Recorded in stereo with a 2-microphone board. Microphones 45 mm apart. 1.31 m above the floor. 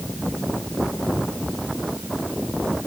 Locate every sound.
Only background noise.